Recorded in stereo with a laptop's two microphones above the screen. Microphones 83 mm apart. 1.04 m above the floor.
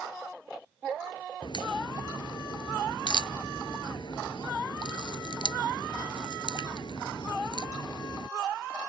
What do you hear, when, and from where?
1.4 s a crack: 70° left (ahead or behind)